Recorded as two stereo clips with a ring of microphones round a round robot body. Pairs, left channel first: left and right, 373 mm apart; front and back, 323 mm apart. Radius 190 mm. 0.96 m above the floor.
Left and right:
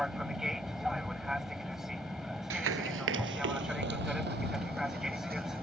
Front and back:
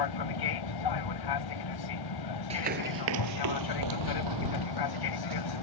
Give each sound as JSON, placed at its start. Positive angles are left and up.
{"t": 0.0, "sound": "an aircraft", "azimuth_deg": 0}
{"t": 2.5, "sound": "running footsteps", "azimuth_deg": -120}